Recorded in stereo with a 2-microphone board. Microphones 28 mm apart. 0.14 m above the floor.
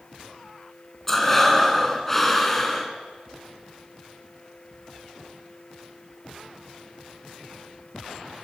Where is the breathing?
10° left (ahead or behind), 1.4 m.